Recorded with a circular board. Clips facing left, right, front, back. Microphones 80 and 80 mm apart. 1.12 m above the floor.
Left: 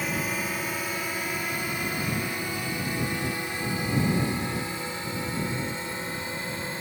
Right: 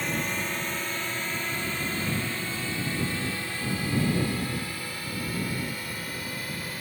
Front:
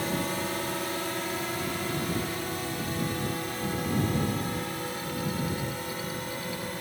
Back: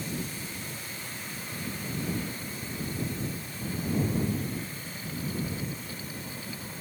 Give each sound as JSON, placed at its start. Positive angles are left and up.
{"t": 0.0, "sound": "a drone", "azimuth_deg": 5}